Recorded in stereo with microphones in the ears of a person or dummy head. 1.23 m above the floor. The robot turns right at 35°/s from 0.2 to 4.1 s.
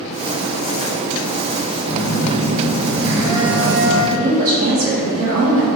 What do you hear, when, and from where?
1.8 s a phone buzzing: 145° right, 1.6 m; by 4.0 s 70° right, 1.6 m
4.1 s a woman speaking: 70° right (ahead or behind), 1.4 m